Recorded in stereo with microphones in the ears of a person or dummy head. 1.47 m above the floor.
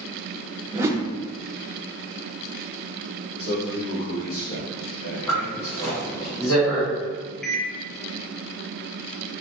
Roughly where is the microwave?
Centre.